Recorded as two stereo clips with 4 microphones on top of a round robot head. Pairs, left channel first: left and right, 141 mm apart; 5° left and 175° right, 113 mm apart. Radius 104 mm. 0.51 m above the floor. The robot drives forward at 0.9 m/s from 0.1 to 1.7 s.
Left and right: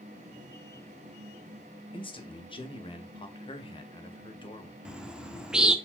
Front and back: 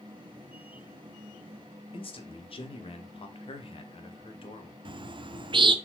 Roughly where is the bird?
Behind.